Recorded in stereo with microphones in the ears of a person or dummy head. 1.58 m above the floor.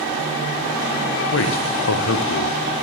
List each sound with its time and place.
1.3 s a man speaking: 75° left (ahead or behind), 1.2 m